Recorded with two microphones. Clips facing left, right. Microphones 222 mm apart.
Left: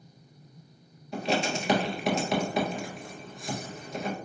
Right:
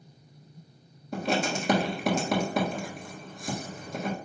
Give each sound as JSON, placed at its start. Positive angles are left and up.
{"t": 1.1, "sound": "writing", "side_deg": -50, "distance_m": 1.6}